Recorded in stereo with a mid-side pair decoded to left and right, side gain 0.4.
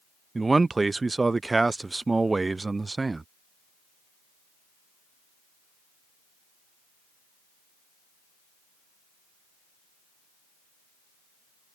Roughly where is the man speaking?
Ahead right.